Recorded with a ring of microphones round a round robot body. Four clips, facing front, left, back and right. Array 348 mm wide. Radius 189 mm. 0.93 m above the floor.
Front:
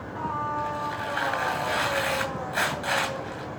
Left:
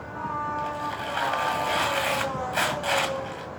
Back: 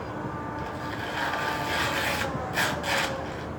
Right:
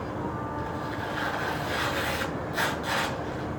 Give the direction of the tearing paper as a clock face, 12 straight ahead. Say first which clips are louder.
Left 2 dB, front 4 dB; 10 o'clock.